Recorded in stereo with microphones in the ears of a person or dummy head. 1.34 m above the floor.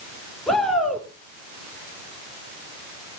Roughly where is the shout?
Centre.